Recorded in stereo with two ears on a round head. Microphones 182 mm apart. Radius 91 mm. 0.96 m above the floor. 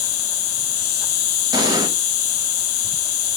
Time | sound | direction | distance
0.0 | an insect | 75° left (ahead or behind) | 0.9 m
1.5 | an explosion | 20° right (ahead or behind) | 0.8 m